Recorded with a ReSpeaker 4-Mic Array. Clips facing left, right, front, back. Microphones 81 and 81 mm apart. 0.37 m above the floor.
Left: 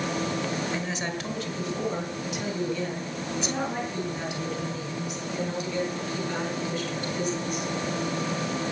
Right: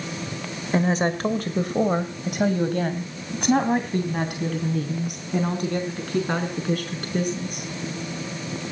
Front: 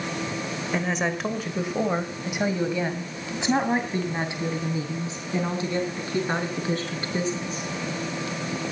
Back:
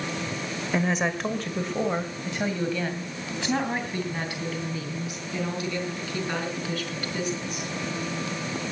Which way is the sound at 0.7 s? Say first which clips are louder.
Right 9 dB, back 1 dB; 100° right.